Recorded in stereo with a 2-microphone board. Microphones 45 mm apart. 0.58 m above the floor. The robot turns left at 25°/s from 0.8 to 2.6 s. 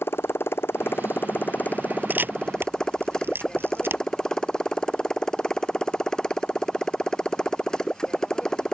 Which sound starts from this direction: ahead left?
A motorcycle, at 0.0 s.